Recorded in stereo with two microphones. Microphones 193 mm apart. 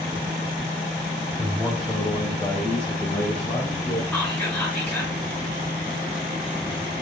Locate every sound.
1.4 s a man speaking: 15° right (ahead or behind), 1.1 m; by 4.0 s 40° left (ahead or behind), 2.5 m
4.1 s whispering: 10° left (ahead or behind), 1.6 m